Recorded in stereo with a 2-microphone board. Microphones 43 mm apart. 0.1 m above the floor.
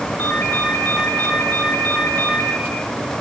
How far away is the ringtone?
About 4 m.